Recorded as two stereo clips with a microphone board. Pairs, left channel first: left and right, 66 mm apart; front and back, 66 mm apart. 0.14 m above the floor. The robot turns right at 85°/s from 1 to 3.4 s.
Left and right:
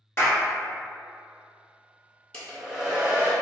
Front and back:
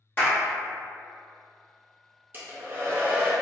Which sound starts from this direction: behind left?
A hair dryer, at 2.3 s.